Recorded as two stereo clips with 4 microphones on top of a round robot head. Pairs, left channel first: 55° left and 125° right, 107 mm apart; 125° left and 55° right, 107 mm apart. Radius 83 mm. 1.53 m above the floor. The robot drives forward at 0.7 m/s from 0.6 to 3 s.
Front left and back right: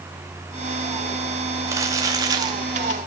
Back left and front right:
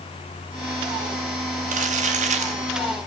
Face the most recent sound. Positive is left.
turn(degrees=-75)